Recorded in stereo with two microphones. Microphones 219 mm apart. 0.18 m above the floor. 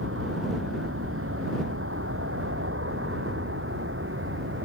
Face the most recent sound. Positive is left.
turn(degrees=-65)  # may be behind; listen again after turning